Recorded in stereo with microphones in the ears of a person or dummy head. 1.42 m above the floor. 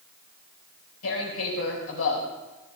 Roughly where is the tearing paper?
Left.